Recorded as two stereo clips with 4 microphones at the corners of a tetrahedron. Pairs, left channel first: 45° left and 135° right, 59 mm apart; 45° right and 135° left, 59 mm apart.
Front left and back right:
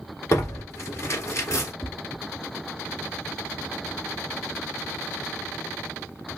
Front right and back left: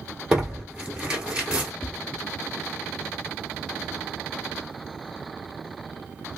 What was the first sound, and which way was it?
Tearing paper, 65° left.